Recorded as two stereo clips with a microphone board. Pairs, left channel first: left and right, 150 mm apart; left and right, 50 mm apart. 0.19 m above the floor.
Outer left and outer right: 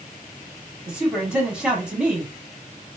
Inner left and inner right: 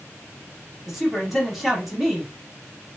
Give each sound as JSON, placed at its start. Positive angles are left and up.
{"t": 0.9, "sound": "a woman speaking", "side_deg": -5, "distance_m": 1.0}